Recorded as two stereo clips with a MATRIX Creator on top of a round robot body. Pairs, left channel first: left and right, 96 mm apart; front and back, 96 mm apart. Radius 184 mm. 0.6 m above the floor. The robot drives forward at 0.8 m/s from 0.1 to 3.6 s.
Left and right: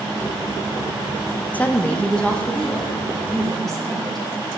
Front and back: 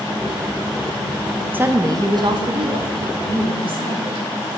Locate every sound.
1.5 s a woman speaking: 135° left, 0.8 m; by 4.2 s 175° left, 2 m